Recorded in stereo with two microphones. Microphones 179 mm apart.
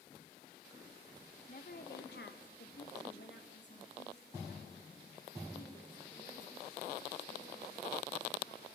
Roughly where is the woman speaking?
Left.